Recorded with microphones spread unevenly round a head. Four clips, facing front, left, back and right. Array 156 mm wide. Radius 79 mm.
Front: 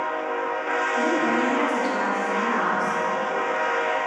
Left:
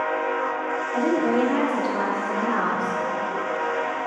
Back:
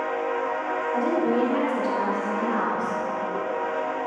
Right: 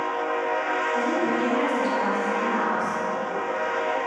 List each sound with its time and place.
0.9 s a woman speaking: 75° left, 3 m